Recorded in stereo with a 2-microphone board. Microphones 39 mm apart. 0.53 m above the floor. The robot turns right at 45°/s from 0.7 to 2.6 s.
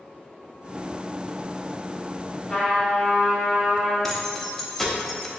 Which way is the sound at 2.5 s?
15° left (ahead or behind).